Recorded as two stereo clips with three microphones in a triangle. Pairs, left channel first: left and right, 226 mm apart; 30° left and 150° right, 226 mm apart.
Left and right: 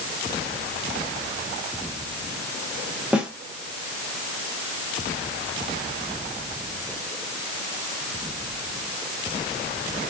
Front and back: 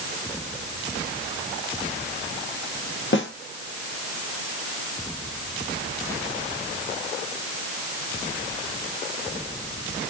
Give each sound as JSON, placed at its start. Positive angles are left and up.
{"t": 3.1, "sound": "a snare drum", "azimuth_deg": -5, "distance_m": 1.2}